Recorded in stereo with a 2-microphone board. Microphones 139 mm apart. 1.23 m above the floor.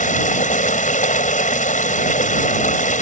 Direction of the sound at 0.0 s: 65° left (ahead or behind).